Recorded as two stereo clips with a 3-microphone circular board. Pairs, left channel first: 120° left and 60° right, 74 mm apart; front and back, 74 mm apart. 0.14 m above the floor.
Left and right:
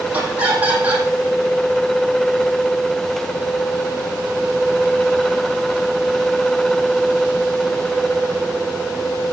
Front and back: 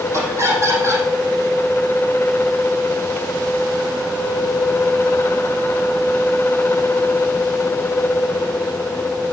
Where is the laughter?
130° right, 6.5 m.